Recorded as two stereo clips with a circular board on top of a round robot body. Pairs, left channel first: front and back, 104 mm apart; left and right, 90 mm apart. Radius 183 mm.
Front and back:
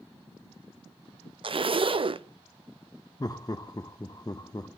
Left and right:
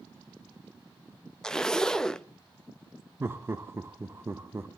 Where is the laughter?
35° right, 1.0 m.